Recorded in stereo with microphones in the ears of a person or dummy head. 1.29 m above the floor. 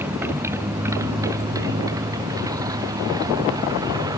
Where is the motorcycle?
10° right (ahead or behind); by 4.2 s 20° right (ahead or behind).